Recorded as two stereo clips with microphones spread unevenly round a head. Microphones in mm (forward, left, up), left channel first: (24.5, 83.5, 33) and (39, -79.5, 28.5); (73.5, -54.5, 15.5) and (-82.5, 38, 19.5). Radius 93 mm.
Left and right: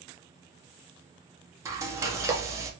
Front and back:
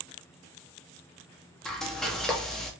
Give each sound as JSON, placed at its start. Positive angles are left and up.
{"t": 1.6, "sound": "frying", "azimuth_deg": -110, "distance_m": 0.7}